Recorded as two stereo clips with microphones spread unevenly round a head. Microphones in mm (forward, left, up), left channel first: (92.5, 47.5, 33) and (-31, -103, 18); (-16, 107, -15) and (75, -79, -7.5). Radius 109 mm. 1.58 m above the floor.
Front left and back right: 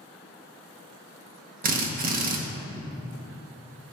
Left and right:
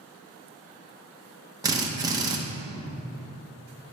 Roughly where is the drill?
Behind right.